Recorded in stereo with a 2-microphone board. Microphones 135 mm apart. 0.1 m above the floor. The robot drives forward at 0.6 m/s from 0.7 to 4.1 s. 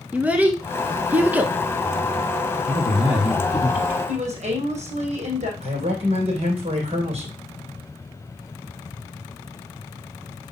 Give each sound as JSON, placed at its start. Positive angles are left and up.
{"t": 0.1, "sound": "a child speaking", "side_deg": -10, "distance_m": 0.7}
{"t": 2.7, "sound": "a man speaking", "side_deg": -10, "distance_m": 1.8}
{"t": 4.1, "sound": "a woman speaking", "side_deg": -60, "distance_m": 3.5}
{"t": 5.6, "sound": "a man speaking", "side_deg": -55, "distance_m": 3.5}